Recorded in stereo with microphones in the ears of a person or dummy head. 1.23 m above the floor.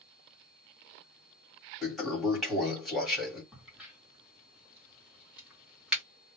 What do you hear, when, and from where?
1.8 s a toilet flushing: 5° left (ahead or behind), 1.2 m
3.5 s a crack: centre (ahead or behind), 1.0 m